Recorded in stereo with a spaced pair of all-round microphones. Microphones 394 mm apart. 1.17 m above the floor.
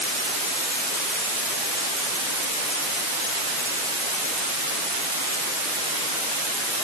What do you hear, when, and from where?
Only background noise.